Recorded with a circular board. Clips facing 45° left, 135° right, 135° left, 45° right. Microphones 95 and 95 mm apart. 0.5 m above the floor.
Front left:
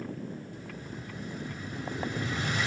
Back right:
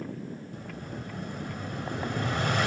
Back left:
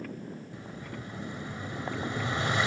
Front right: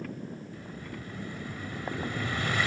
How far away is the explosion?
About 1.5 m.